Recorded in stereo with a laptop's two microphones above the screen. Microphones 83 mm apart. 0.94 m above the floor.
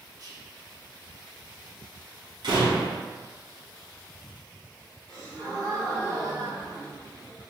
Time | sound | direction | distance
0.2 | whispering | 50° right (ahead or behind) | 0.7 m
2.4 | a door slam | 65° right (ahead or behind) | 1.0 m
5.1 | a gasp | 65° right (ahead or behind) | 1.9 m